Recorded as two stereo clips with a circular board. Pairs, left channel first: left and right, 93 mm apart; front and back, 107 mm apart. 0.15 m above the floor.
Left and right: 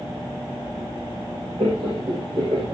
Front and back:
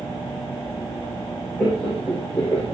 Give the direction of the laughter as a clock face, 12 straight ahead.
3 o'clock.